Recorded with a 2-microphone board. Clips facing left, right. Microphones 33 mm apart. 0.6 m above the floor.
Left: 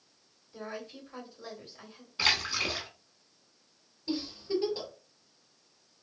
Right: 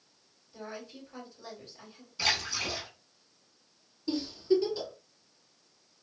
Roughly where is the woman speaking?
Centre.